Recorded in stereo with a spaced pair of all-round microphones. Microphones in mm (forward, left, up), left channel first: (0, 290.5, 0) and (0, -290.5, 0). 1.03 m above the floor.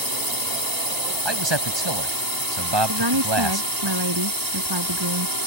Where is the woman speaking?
45° right (ahead or behind).